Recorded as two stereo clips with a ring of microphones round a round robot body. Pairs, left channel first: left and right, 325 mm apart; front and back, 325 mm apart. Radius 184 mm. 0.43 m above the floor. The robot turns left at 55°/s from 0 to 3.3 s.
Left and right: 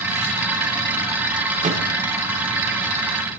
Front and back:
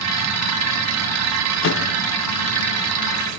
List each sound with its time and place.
1.6 s a microwave: 30° right, 0.8 m; by 1.8 s 40° right, 0.8 m